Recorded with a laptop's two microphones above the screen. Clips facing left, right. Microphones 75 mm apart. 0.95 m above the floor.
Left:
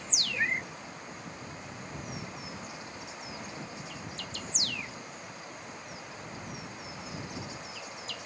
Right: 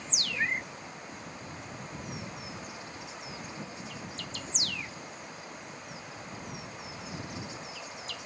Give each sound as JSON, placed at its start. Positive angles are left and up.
{"t": 0.3, "sound": "a cat meowing", "side_deg": 5}